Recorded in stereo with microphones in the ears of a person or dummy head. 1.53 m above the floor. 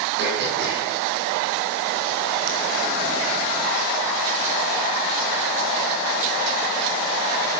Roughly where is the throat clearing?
Right.